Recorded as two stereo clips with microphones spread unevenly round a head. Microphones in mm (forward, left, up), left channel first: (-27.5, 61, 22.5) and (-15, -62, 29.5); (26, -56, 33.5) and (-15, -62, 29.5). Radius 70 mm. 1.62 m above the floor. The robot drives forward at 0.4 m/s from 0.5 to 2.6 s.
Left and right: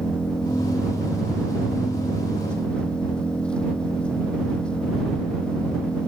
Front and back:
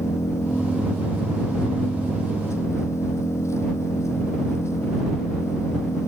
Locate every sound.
0.0 s an engine running: 10° left